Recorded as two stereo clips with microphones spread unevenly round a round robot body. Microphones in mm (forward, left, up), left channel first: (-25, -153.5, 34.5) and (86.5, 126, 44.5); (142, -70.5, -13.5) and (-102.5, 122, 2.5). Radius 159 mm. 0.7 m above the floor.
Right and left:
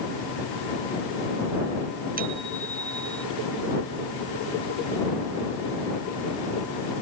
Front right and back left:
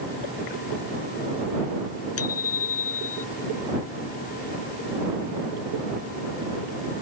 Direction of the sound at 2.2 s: 5° left.